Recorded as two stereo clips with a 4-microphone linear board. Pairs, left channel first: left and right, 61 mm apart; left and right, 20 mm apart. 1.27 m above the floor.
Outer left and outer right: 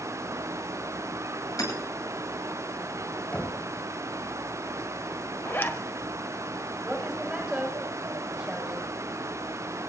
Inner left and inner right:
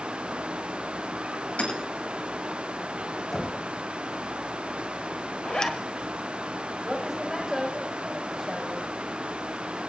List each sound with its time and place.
1.6 s hammering: 75° left (ahead or behind), 10 m
3.3 s knocking: 20° left (ahead or behind), 4.5 m
5.5 s a zipper: 40° left (ahead or behind), 1.5 m
6.8 s a woman speaking: 10° right (ahead or behind), 7 m